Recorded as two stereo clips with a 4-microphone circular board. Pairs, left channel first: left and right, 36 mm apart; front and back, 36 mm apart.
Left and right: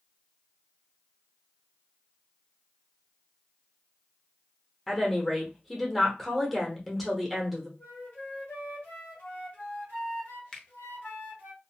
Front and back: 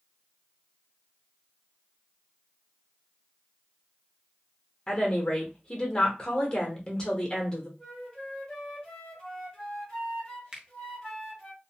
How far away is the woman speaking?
About 0.8 m.